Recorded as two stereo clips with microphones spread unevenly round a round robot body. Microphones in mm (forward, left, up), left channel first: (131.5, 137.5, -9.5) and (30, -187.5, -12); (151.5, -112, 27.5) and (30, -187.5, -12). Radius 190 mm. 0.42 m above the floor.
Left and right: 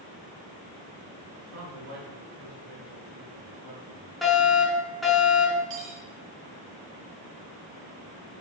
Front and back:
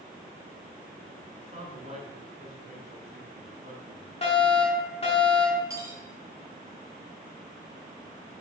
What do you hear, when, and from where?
1.4 s a man speaking: 110° right, 5.5 m; by 4.1 s 125° right, 4 m
4.2 s a fire alarm: 15° right, 6.5 m
5.7 s cutlery clinking: 80° right, 3.5 m